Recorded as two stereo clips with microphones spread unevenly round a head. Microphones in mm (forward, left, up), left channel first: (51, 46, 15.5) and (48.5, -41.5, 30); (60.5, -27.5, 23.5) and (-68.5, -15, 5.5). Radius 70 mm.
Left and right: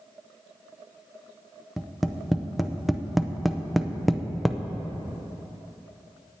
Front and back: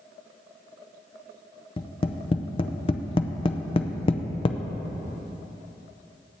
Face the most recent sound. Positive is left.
turn(degrees=10)